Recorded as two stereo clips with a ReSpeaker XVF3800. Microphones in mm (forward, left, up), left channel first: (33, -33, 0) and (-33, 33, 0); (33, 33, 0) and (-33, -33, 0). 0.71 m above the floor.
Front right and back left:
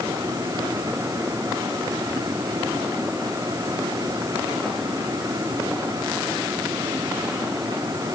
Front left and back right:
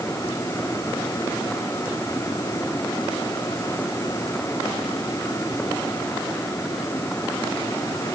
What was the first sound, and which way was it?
Only background noise.